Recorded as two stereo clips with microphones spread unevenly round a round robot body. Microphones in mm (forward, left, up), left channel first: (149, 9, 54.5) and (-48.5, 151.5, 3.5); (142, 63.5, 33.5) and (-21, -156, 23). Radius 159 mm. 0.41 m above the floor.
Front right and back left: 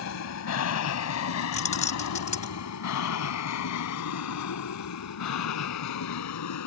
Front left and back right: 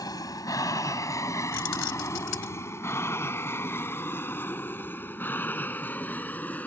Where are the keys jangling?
30° left.